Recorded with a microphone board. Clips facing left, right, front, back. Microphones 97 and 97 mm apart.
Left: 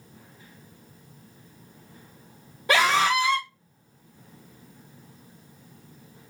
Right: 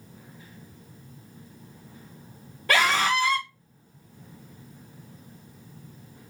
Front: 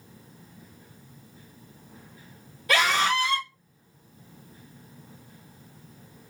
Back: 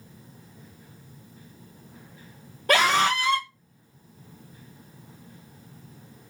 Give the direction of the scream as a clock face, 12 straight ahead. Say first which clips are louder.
Left 2 dB, back 2 dB; 7 o'clock.